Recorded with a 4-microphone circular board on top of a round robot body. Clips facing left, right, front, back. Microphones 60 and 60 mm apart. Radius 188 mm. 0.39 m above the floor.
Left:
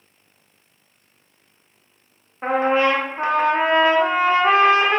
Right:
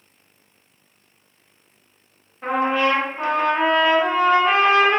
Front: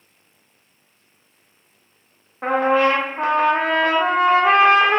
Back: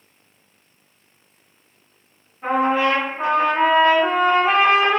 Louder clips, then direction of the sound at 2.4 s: Left 2 dB, front 2 dB; 30° left.